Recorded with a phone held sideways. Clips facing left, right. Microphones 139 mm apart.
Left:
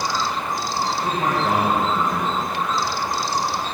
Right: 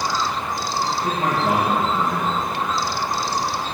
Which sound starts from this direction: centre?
A man speaking, at 1.0 s.